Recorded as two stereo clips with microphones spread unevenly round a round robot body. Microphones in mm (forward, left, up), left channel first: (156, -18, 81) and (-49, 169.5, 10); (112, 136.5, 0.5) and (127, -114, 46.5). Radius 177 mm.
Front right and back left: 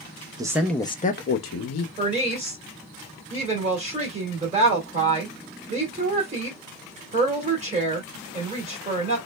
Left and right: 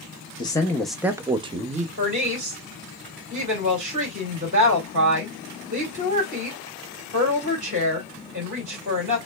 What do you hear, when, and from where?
0.4 s a man speaking: 115° left, 0.7 m; by 1.9 s 20° right, 0.9 m
2.0 s a woman speaking: 160° right, 1.7 m